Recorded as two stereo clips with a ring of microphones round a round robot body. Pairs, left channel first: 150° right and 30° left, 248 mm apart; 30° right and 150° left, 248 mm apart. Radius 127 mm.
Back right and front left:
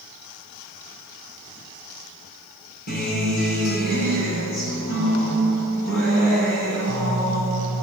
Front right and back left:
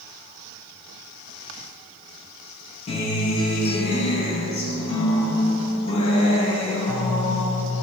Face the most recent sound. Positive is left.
turn(degrees=-95)